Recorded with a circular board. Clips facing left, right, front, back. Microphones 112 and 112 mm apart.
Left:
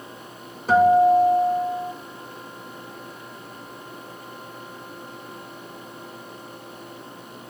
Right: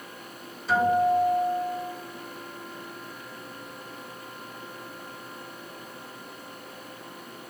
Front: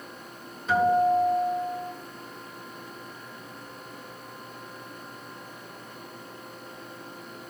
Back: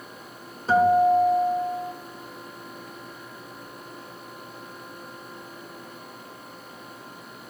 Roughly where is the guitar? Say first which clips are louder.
Left 7 dB, back 3 dB; behind left.